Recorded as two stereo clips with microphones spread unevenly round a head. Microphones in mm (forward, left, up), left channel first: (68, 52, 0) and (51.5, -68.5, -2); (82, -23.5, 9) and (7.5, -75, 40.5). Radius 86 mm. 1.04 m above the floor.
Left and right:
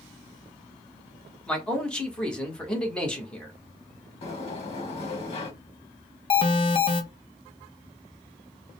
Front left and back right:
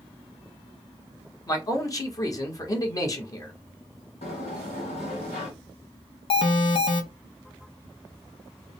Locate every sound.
1.5 s a man speaking: straight ahead, 1.3 m
4.2 s a sliding door: 70° left, 1.2 m
6.3 s an alarm: 35° left, 0.7 m